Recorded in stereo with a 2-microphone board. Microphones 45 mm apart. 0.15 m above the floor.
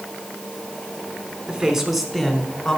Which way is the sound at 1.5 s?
15° right (ahead or behind).